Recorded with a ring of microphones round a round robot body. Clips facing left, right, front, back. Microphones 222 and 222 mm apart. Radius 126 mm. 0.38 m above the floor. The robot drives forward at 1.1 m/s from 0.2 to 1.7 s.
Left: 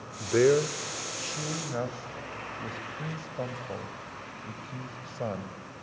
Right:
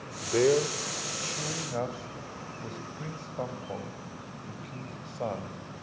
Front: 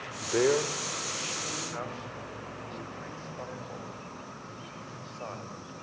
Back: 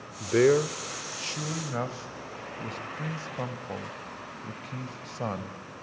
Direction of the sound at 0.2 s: 140° left.